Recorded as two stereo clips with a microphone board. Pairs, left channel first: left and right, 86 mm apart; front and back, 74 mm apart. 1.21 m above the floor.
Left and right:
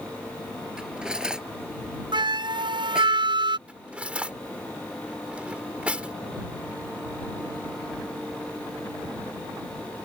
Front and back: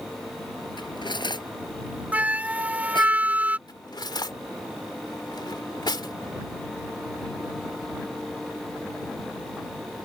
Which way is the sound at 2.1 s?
110° right.